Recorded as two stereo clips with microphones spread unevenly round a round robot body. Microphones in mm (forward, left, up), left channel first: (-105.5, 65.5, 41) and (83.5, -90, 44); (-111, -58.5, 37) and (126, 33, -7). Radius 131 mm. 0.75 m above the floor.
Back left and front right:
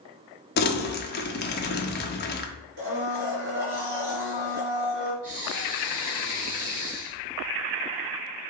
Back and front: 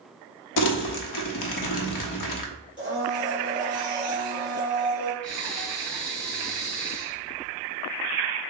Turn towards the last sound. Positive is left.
turn(degrees=-75)